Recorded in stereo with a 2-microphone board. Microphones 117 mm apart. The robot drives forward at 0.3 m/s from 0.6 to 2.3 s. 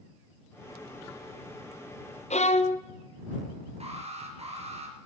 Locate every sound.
2.3 s a violin: 75° left (ahead or behind), 0.8 m
3.8 s an alarm: 60° right (ahead or behind), 3.5 m